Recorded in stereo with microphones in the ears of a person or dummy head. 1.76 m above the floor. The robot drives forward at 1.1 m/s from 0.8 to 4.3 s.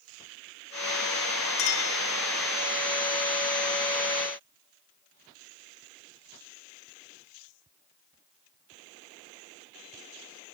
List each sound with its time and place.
1.6 s a clink: 70° left (ahead or behind), 5 m; by 1.9 s 65° left (ahead or behind), 5 m